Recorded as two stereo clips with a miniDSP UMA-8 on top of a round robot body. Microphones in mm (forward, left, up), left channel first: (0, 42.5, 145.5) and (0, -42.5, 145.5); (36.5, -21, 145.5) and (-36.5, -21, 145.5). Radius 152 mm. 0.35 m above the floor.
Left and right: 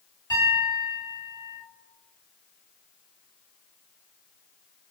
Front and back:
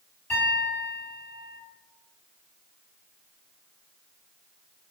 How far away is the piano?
About 1.9 m.